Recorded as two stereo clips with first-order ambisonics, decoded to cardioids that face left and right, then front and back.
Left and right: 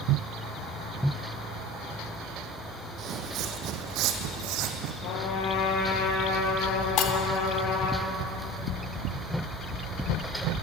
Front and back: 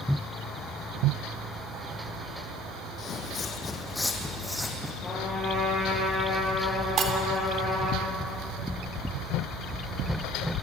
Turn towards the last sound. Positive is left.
turn(degrees=125)